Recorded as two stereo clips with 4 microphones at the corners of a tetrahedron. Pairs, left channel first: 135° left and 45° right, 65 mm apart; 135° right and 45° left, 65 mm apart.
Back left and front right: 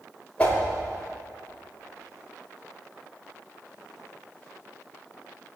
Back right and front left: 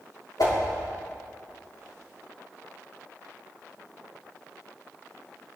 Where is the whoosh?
150° right, 4.5 m.